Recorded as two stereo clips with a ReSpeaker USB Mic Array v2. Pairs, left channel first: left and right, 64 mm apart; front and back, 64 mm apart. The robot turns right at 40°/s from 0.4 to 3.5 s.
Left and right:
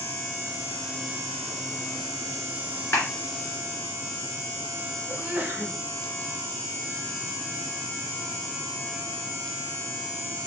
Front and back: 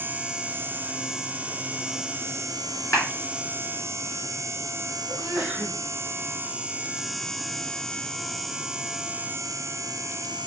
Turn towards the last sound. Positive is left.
turn(degrees=-125)